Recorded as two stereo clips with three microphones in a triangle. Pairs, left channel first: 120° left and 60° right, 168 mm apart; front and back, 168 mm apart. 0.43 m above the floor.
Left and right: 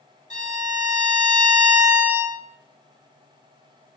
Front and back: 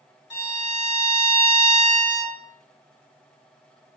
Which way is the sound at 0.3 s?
95° left.